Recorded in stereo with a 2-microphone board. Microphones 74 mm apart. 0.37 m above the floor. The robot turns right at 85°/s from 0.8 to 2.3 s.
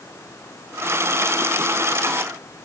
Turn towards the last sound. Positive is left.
No sound to turn to.